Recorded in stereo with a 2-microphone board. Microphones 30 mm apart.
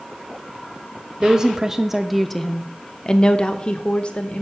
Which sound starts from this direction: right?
A woman speaking, at 1.2 s.